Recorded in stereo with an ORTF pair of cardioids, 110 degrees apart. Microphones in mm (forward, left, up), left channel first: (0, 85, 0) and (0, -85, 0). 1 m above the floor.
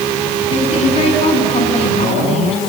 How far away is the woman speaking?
About 7.5 m.